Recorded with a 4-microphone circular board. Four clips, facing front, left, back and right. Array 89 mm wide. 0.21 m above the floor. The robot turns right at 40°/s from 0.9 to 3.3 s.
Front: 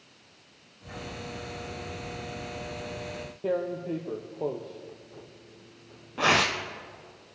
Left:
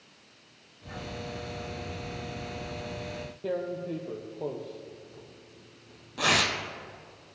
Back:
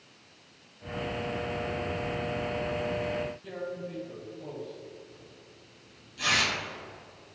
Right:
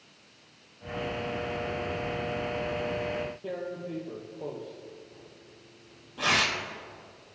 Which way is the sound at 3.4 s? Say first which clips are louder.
Left 3 dB, front 8 dB; 15° left.